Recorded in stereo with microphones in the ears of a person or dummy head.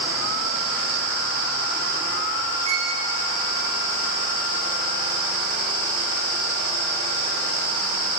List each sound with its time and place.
2.6 s a violin: 35° right (ahead or behind), 1.3 m